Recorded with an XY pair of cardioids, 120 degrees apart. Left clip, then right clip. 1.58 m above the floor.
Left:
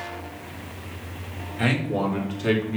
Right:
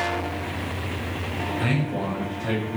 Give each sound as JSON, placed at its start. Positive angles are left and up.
{"t": 1.6, "sound": "a man speaking", "azimuth_deg": 60, "distance_m": 3.5}